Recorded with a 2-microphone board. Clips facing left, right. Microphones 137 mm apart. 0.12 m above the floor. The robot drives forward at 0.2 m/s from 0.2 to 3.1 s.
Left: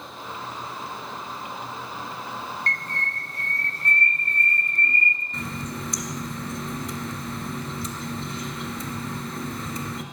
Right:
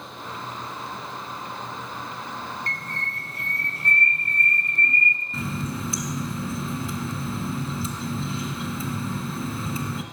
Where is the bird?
5° right (ahead or behind), 0.9 m.